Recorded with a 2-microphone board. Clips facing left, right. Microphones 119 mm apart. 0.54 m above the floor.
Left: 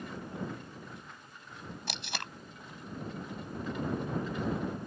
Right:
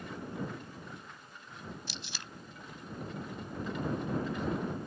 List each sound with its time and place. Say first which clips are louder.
1.9 s tape being pulled: left 6 dB; 70° left (ahead or behind)